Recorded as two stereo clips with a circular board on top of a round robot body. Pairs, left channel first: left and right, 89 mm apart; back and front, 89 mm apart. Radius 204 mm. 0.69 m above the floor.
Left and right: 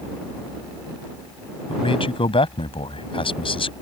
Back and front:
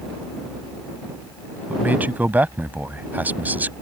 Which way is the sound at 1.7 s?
70° left.